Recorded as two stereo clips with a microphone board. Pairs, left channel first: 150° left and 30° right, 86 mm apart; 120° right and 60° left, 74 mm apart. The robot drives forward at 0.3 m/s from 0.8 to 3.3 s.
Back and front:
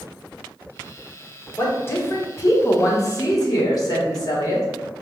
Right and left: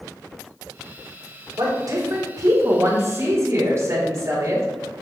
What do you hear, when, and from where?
1.6 s a woman speaking: 85° left, 1.2 m; by 4.7 s 110° left, 1.2 m